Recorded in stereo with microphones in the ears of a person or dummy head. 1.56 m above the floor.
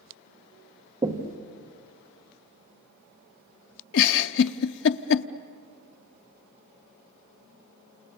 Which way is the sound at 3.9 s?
65° left (ahead or behind).